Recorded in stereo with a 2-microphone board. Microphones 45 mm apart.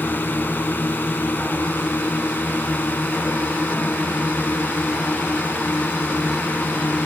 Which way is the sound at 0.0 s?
50° left (ahead or behind).